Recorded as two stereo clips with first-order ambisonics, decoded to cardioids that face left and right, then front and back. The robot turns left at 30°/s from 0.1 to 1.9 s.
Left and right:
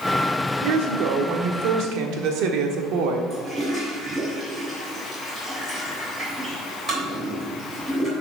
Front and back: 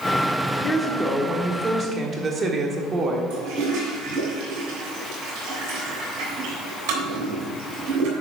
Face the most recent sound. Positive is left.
turn(degrees=-165)